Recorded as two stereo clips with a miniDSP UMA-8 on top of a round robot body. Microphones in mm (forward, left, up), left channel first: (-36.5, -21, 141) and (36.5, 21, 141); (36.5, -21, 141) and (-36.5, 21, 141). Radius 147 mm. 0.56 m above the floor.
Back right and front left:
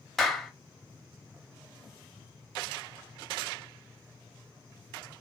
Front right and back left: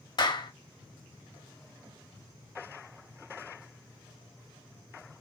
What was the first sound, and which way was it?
A clap, 65° right.